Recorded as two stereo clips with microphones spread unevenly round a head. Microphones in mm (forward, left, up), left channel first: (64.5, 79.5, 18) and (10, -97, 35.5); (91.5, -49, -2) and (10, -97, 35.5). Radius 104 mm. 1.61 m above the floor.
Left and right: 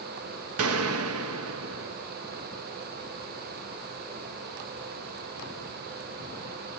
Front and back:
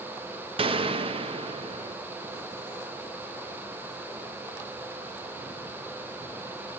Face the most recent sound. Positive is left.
turn(degrees=-125)